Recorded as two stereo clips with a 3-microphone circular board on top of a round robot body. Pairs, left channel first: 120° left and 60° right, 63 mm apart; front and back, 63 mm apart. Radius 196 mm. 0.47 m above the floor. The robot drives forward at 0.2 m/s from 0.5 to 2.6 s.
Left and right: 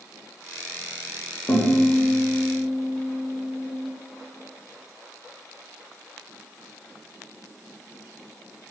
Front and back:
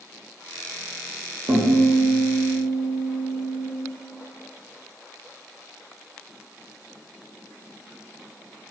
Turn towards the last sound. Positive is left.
turn(degrees=170)